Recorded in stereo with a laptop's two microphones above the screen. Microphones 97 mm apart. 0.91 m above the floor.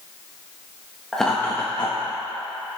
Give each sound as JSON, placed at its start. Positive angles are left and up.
{"t": 1.1, "sound": "laughter", "side_deg": 0, "distance_m": 1.2}